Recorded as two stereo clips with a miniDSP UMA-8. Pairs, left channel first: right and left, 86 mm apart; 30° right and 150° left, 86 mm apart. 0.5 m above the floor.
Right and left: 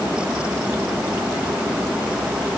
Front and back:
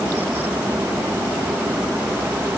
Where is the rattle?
No rattle in this recording.